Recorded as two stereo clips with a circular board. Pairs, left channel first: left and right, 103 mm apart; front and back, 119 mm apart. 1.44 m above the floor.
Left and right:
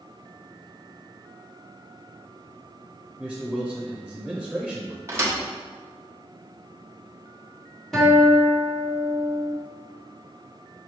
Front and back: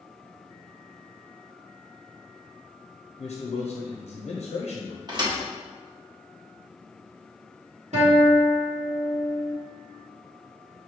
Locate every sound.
3.2 s a man speaking: straight ahead, 0.6 m
5.1 s a thud: 145° right, 1.0 m
7.9 s a guitar: straight behind, 1.5 m